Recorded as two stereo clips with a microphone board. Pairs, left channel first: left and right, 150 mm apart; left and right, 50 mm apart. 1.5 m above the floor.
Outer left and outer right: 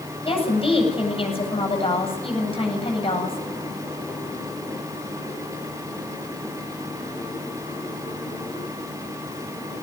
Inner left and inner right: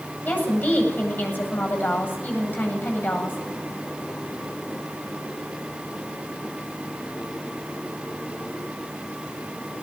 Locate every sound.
0.2 s a woman speaking: 40° left (ahead or behind), 8.5 m